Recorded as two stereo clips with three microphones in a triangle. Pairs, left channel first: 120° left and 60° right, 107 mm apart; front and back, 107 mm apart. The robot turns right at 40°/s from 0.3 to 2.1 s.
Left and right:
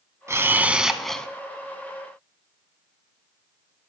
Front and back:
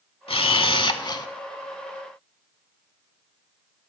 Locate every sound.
0.3 s a camera shutter: straight ahead, 0.5 m; by 1.3 s 40° left, 0.5 m